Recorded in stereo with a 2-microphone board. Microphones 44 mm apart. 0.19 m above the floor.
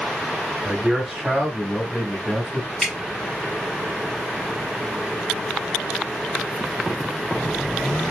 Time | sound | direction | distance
0.7 | a man speaking | 20° right (ahead or behind) | 1.4 m
2.8 | dripping | 20° left (ahead or behind) | 1.0 m